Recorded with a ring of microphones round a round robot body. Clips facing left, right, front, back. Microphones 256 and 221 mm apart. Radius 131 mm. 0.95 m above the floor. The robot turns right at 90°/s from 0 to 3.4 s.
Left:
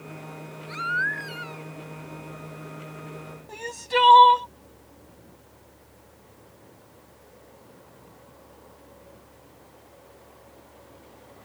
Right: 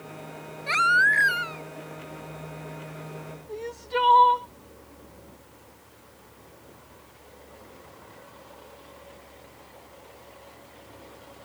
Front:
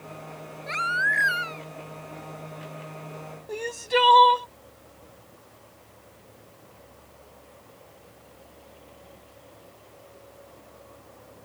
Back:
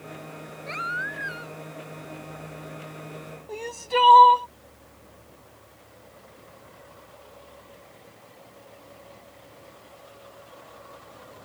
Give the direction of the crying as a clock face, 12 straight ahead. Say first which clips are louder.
Left 2 dB, front 2 dB; 10 o'clock.